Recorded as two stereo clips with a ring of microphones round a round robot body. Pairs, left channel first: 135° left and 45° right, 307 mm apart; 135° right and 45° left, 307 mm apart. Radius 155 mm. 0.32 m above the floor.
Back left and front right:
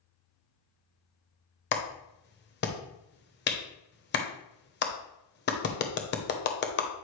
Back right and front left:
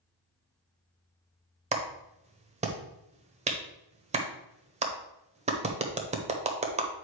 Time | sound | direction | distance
1.7 | a clap | 100° left | 1.0 m